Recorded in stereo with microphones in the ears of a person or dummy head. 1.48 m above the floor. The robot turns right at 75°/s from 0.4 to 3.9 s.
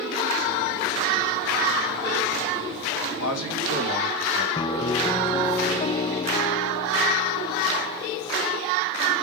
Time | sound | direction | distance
3.2 | a man speaking | 85° left | 4 m
4.5 | a piano | 25° left (ahead or behind) | 0.7 m